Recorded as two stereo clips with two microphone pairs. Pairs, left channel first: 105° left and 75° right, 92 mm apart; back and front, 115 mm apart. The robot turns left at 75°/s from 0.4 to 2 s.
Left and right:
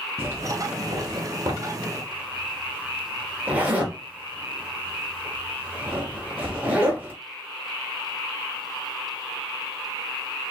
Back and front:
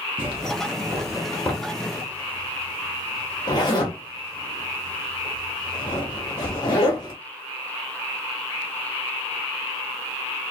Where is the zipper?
20° right, 1.1 m; by 7.1 s 140° right, 1.1 m.